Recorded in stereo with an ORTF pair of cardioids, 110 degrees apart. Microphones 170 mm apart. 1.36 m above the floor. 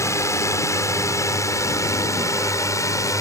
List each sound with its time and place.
0.0 s a drone: 15° left; by 3.2 s 20° left